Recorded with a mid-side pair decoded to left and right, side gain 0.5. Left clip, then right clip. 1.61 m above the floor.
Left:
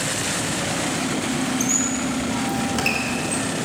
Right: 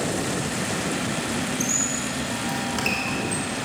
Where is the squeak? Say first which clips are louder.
Left 3 dB; 15° left, 3 m.